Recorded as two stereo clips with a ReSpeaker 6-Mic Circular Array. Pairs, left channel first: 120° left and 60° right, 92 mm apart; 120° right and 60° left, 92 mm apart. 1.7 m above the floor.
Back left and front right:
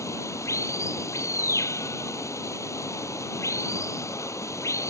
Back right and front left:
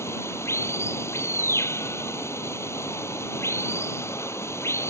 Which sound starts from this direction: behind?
Running water, at 0.0 s.